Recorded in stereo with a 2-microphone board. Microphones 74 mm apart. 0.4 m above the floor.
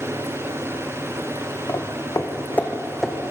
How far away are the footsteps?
About 1.4 m.